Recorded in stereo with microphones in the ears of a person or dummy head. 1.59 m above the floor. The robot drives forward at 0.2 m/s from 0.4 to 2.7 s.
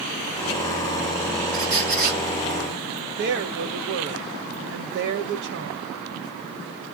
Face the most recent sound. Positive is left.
turn(degrees=-60)  # may be behind; listen again after turning